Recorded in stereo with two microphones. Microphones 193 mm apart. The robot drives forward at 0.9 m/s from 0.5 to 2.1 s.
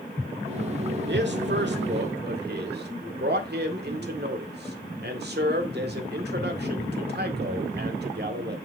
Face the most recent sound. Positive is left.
turn(degrees=-60)  # may be behind; listen again after turning